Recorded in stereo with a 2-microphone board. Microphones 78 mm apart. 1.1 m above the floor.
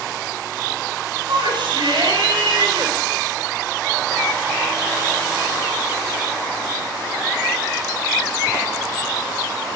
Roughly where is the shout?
Right.